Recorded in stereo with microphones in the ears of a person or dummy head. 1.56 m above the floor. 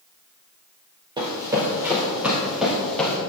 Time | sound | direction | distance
1.2 | running footsteps | 15° right (ahead or behind) | 2 m